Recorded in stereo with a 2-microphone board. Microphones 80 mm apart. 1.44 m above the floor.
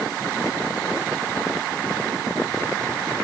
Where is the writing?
I don't hear writing.